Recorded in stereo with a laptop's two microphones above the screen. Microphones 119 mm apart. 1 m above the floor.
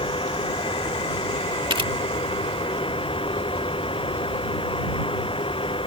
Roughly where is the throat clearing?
I don't hear throat clearing.